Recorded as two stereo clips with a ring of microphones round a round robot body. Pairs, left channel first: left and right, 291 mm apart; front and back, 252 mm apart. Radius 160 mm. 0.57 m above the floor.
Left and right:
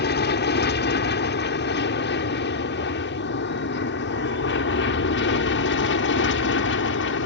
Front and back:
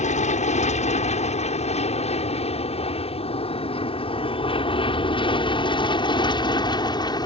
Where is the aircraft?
50° left; by 7.3 s 65° left.